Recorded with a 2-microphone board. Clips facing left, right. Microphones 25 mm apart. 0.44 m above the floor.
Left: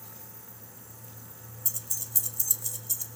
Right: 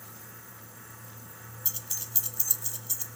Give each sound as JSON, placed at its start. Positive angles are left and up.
{"t": 1.6, "sound": "keys jangling", "side_deg": -35, "distance_m": 0.9}